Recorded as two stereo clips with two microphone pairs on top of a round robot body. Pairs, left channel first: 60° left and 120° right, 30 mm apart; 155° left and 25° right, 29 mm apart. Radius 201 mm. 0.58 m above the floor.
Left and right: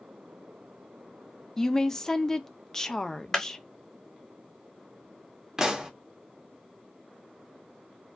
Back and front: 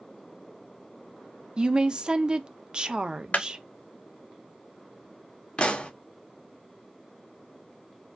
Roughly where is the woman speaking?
Ahead.